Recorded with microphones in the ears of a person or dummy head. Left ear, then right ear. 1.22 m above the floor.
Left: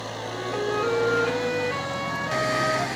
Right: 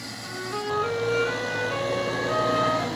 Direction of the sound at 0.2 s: 10° left (ahead or behind).